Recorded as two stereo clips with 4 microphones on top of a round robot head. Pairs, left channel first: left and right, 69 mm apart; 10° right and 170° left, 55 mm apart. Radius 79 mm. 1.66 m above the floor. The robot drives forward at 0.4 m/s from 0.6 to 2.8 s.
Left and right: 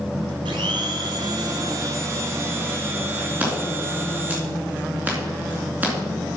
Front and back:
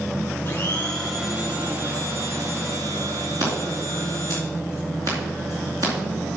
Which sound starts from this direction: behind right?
Scissors, at 3.4 s.